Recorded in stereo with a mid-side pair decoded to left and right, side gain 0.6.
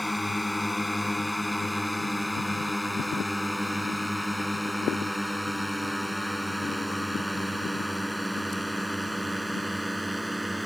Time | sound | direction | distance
0.0 | a drone | 5° left | ?